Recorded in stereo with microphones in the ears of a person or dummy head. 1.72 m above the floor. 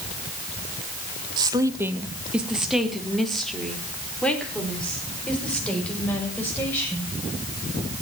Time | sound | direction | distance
1.4 | a woman speaking | 25° right (ahead or behind) | 1.6 m